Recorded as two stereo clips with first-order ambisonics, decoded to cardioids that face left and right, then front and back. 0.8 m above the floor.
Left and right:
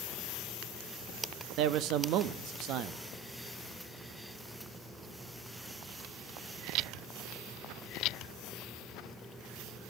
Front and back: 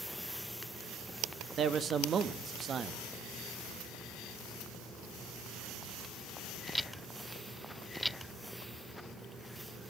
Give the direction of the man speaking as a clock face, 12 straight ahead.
4 o'clock.